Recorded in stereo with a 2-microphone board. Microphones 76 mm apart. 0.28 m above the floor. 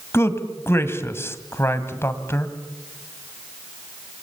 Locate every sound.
0.1 s a man speaking: 30° left (ahead or behind), 1.9 m